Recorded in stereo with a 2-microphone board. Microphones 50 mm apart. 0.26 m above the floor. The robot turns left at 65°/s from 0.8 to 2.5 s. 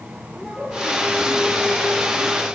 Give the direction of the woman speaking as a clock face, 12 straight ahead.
6 o'clock.